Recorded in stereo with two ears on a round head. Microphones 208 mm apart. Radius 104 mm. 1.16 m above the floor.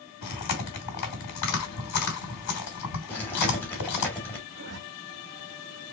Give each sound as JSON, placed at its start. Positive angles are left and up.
{"t": 0.2, "sound": "chewing", "side_deg": 80, "distance_m": 2.5}
{"t": 3.1, "sound": "chewing", "side_deg": 10, "distance_m": 2.5}
{"t": 4.5, "sound": "a zipper", "side_deg": -50, "distance_m": 1.3}